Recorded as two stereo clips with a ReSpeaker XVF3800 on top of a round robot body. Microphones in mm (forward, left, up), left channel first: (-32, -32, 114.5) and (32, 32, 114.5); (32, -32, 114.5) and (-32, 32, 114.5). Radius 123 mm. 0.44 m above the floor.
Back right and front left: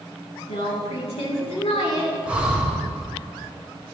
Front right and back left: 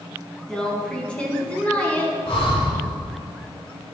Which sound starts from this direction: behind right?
A woman speaking, at 0.5 s.